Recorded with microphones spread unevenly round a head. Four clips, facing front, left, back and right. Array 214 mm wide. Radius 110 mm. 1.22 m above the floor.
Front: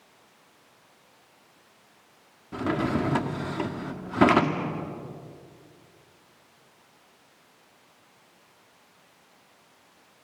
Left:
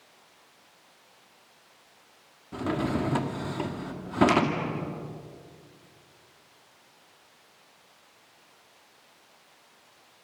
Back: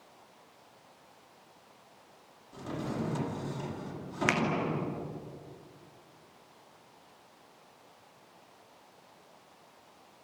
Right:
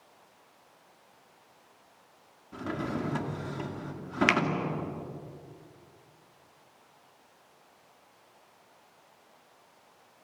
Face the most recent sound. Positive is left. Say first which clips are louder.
# left 3 dB, front 8 dB
turn(degrees=-160)